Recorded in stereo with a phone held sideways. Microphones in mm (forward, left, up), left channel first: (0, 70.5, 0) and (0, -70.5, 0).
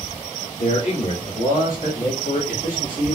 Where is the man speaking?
70° left (ahead or behind), 2.5 m; by 3.1 s 65° left (ahead or behind), 2 m.